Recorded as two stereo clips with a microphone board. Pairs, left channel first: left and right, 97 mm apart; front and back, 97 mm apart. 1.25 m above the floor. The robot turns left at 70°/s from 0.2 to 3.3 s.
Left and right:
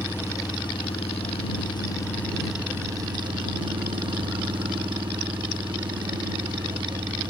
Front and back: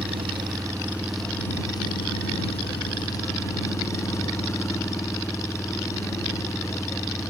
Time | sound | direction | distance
0.0 | an engine running | 155° left | ?